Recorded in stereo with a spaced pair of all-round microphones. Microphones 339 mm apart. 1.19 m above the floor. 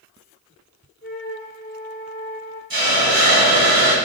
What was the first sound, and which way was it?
A flute, 25° left (ahead or behind).